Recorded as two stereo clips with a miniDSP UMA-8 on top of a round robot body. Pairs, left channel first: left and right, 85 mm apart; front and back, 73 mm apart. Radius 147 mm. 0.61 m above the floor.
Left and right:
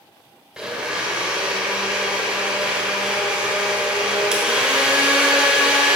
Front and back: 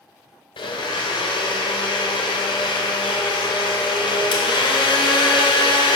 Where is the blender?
10° right, 1.5 m.